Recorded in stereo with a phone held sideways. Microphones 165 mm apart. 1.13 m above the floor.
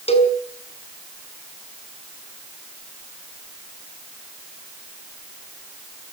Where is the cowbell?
40° left (ahead or behind), 4.5 m.